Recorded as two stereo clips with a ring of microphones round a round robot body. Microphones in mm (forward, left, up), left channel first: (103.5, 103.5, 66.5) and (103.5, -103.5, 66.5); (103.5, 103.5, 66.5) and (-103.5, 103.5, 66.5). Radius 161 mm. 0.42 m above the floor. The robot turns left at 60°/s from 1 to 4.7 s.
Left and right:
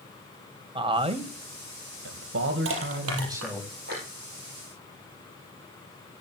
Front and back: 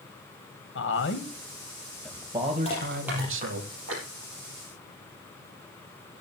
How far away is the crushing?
About 5.5 m.